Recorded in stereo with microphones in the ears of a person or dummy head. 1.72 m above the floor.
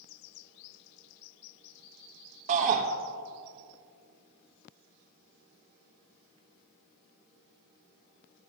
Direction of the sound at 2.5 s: 35° right (ahead or behind).